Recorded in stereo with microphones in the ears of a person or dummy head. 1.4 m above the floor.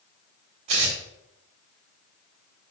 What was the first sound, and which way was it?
Tearing paper, 40° right (ahead or behind).